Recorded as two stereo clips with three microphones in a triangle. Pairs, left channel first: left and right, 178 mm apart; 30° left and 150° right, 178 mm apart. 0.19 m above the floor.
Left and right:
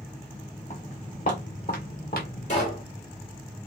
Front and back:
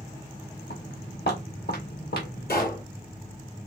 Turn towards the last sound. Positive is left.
turn(degrees=45)